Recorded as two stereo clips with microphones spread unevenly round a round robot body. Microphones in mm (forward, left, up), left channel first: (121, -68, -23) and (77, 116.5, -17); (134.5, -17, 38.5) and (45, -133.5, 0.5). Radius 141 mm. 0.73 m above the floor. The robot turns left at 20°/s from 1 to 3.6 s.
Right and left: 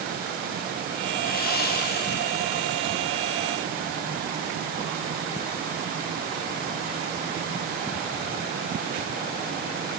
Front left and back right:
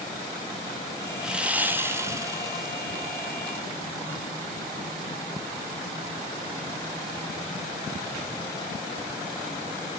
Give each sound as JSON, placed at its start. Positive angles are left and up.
{"t": 1.2, "sound": "sawing", "azimuth_deg": -55, "distance_m": 0.8}